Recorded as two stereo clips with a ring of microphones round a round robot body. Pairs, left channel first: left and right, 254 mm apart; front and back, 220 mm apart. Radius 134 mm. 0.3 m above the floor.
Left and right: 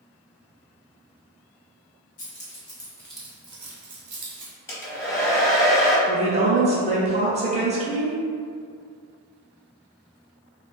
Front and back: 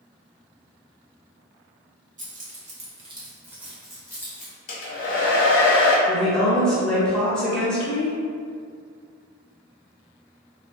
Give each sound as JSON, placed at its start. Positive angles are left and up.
{"t": 2.2, "sound": "keys jangling", "azimuth_deg": 135, "distance_m": 1.2}
{"t": 4.7, "sound": "a hair dryer", "azimuth_deg": 10, "distance_m": 0.9}
{"t": 6.1, "sound": "a woman speaking", "azimuth_deg": -80, "distance_m": 0.9}